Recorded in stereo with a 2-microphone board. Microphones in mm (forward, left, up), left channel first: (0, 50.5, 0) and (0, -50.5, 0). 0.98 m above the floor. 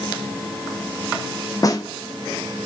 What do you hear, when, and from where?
1.6 s a snare drum: 35° left (ahead or behind), 0.6 m